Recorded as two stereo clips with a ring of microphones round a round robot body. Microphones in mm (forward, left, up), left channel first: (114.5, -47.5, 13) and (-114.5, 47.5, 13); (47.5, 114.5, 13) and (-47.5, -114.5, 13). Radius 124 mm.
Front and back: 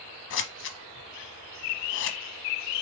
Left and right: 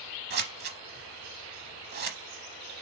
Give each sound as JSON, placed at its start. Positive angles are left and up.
{"t": 0.3, "sound": "scissors", "azimuth_deg": -60, "distance_m": 0.7}